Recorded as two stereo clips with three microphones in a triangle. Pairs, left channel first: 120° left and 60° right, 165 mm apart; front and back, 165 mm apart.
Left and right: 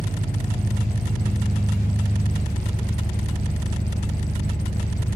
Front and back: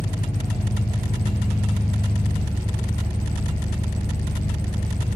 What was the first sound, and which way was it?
An engine running, 65° right.